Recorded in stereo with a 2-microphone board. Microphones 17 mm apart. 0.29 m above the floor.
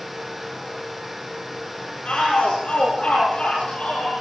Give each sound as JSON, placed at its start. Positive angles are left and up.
{"t": 2.0, "sound": "a shout", "side_deg": 75, "distance_m": 8.5}